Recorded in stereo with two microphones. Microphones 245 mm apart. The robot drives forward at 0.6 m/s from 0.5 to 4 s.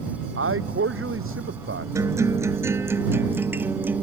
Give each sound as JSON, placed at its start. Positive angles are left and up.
{"t": 0.4, "sound": "a man speaking", "side_deg": -70}
{"t": 1.9, "sound": "a guitar", "side_deg": -15}